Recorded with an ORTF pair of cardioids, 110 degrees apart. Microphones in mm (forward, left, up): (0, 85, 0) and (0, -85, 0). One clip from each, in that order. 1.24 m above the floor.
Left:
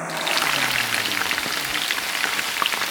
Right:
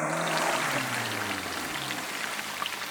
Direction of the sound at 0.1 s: 55° left.